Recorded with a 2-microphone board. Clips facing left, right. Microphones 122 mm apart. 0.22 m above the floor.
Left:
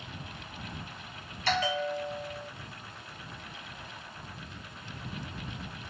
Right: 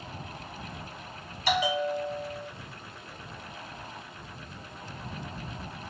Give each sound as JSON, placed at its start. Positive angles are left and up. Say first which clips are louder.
{"t": 1.5, "sound": "a bell", "louder": "right 3 dB", "side_deg": -10}